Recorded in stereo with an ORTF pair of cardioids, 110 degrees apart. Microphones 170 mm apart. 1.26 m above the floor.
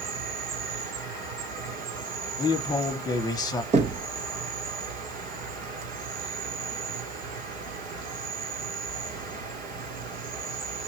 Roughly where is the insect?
Ahead right.